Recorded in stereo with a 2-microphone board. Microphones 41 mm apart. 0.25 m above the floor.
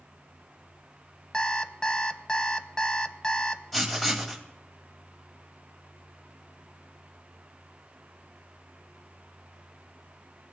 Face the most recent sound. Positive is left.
turn(degrees=5)  # may be behind; listen again after turning